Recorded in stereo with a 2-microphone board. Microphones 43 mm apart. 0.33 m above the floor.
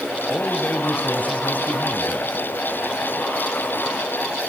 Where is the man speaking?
40° left (ahead or behind), 2 m.